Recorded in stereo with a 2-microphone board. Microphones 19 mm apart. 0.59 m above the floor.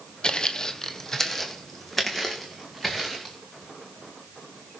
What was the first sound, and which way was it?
Footsteps, 50° left (ahead or behind).